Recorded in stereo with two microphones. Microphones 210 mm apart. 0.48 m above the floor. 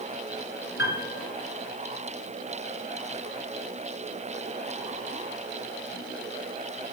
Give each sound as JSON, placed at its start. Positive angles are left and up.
{"t": 0.8, "sound": "a piano", "side_deg": 60, "distance_m": 1.7}